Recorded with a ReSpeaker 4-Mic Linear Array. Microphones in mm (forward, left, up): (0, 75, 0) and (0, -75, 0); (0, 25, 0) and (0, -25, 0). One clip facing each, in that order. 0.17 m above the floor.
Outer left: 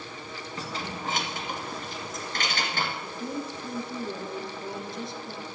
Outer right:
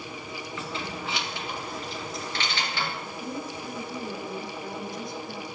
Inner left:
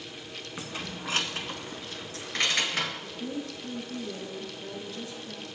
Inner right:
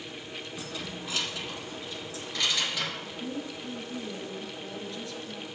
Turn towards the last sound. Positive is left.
turn(degrees=25)  # may be behind; listen again after turning